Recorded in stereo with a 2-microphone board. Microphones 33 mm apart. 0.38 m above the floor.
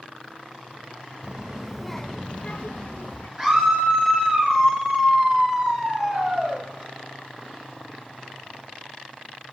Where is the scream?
15° right (ahead or behind), 5.5 m.